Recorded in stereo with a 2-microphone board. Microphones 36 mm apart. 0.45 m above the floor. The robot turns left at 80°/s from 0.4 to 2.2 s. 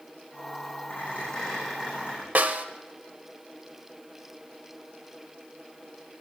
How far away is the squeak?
About 8 m.